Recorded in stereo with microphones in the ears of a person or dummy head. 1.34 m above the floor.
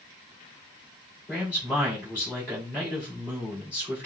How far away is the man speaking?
About 2.5 m.